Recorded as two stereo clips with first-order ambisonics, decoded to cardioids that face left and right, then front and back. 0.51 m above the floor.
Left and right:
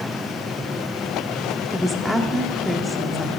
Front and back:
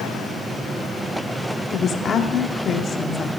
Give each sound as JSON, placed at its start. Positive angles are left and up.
{"t": 1.7, "sound": "a woman speaking", "azimuth_deg": 5, "distance_m": 1.1}